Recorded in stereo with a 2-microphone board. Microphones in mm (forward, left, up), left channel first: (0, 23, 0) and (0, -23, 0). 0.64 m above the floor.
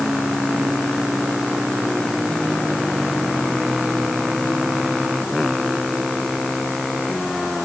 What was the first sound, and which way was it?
Only background noise.